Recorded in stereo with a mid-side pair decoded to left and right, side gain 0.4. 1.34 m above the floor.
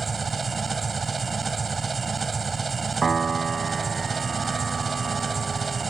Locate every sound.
0.0 s an engine running: 30° right
3.0 s a piano: 35° right